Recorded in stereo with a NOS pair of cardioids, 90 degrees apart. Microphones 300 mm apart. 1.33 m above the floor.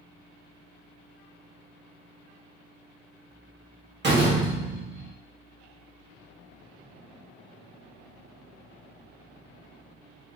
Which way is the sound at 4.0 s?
35° right.